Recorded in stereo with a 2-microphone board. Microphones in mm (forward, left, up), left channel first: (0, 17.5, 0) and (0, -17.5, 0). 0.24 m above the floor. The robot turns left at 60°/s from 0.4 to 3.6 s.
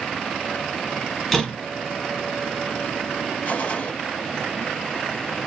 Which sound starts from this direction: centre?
A door slam, at 1.3 s.